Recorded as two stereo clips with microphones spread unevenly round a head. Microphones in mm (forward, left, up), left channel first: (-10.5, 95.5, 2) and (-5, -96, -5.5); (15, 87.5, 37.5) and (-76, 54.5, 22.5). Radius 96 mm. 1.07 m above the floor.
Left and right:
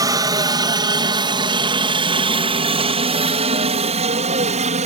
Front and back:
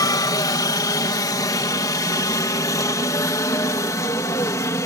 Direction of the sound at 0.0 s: 25° right.